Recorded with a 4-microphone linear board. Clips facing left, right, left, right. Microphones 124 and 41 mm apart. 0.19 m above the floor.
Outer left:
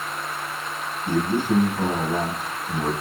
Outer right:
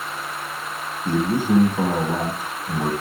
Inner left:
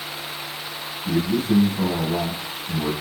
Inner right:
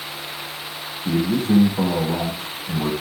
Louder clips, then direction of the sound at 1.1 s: Outer right 2 dB, inner right 1 dB; 40° right (ahead or behind).